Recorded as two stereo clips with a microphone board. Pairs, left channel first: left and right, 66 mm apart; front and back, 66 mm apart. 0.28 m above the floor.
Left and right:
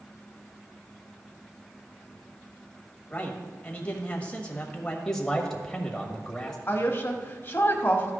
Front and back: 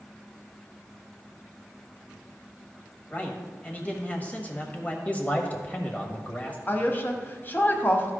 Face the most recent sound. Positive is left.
turn(degrees=45)